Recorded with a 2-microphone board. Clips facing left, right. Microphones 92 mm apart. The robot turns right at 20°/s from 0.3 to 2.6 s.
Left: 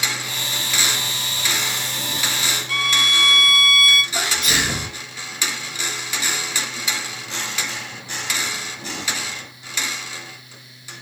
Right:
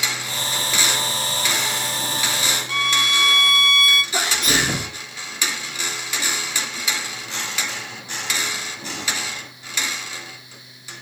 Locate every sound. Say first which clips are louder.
2.7 s a violin: even; 25° right (ahead or behind), 0.8 m
4.1 s a sneeze: right 1 dB; 45° right (ahead or behind), 1.0 m